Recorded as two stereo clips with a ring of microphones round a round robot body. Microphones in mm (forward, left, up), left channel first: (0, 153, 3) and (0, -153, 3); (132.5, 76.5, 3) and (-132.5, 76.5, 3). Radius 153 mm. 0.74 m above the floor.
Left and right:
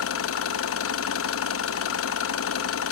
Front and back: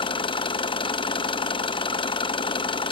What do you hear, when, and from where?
0.0 s an engine running: 65° left, 0.8 m